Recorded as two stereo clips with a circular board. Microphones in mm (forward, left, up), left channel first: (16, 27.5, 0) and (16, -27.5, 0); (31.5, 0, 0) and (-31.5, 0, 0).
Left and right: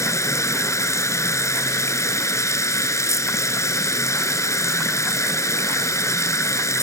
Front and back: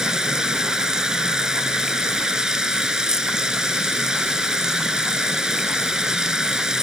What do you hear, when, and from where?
0.0 s running water: 100° left